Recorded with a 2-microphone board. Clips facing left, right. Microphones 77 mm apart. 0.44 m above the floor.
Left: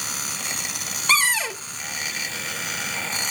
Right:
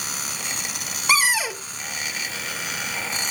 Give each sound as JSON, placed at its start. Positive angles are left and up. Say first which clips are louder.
{"t": 1.1, "sound": "a cupboard door", "louder": "right 1 dB", "side_deg": -10, "distance_m": 1.0}